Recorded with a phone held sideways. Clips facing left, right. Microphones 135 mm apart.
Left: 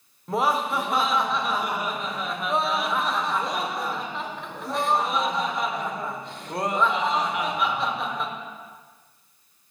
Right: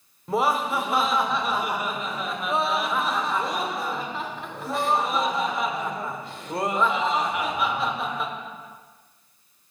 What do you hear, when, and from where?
0.3 s laughter: centre (ahead or behind), 1.0 m